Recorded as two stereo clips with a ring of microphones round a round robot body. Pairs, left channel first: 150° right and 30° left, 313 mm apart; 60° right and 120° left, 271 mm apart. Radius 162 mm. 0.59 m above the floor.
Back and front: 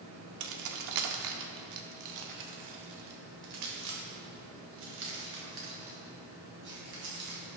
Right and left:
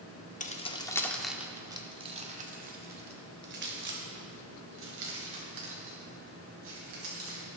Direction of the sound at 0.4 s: Straight ahead.